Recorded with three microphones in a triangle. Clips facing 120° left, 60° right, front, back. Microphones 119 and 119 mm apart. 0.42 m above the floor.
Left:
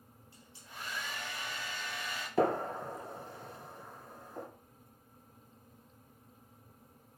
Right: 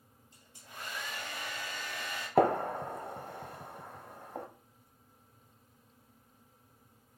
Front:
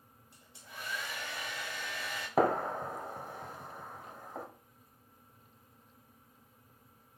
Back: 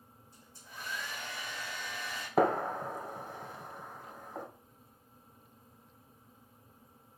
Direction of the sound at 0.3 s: 15° right.